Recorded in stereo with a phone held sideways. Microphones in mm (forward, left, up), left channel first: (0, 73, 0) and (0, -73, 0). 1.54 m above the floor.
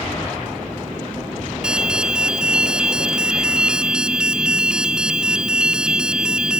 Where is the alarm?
5° right (ahead or behind).